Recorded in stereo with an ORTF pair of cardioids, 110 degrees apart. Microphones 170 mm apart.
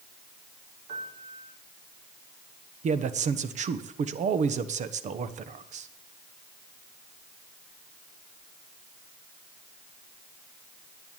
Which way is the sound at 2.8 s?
45° right.